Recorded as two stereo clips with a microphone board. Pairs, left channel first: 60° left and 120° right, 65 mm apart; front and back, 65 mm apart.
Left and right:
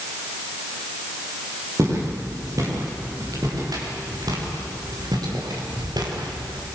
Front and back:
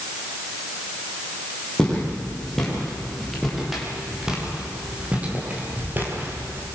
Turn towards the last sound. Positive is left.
turn(degrees=-130)